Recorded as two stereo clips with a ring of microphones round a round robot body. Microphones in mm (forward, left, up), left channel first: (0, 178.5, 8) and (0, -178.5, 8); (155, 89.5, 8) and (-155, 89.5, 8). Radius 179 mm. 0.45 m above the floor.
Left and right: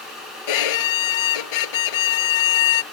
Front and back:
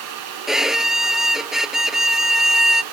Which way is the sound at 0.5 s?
90° left.